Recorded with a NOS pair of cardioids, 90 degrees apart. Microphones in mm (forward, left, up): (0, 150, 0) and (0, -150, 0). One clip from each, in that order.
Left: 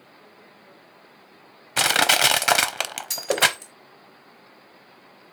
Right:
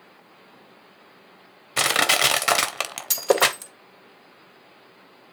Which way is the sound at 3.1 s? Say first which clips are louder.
Right 2 dB; 55° right.